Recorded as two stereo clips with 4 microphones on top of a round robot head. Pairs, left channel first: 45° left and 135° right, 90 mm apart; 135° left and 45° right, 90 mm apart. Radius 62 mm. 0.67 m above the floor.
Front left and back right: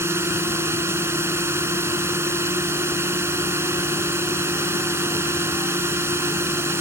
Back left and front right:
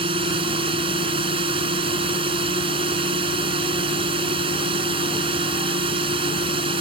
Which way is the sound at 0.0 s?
75° right.